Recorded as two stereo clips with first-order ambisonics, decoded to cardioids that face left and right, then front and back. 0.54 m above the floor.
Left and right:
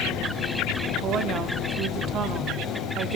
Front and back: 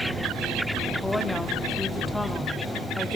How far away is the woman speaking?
About 1.0 m.